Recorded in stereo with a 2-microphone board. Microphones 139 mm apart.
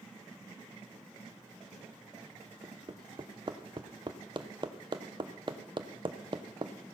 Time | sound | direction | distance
2.6 | hammering | 35° right (ahead or behind) | 0.9 m